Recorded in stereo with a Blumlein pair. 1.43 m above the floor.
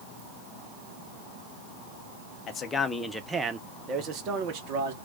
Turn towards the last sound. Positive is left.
turn(degrees=-50)